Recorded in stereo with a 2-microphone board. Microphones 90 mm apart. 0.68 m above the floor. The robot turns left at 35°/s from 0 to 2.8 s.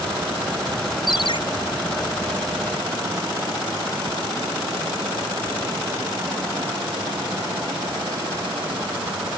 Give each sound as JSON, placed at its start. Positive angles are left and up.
{"t": 1.1, "sound": "a ringtone", "side_deg": 50}